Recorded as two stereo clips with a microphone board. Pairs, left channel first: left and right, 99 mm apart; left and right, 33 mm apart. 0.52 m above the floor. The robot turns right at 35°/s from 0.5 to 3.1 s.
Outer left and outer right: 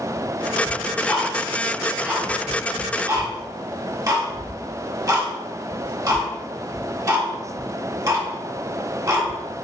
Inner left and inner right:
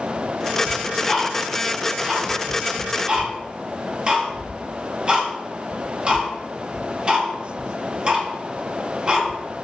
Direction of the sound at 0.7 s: 20° left (ahead or behind).